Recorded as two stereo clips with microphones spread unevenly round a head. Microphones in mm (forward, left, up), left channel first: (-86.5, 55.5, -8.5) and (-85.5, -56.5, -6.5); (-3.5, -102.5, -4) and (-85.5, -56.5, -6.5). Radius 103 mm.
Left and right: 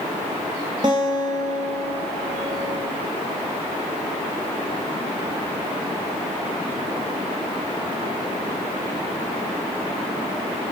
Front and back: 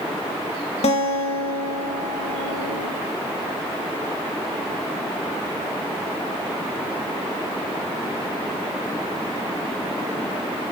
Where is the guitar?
20° right, 0.7 m.